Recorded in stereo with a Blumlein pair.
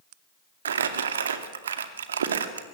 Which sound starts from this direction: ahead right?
Crumpling, at 0.7 s.